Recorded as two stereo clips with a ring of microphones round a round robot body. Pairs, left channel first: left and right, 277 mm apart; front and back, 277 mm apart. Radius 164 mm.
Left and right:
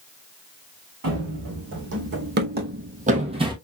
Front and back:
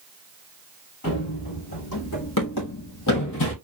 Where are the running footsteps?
50° right, 2 m; by 3.5 s 20° right, 1.0 m.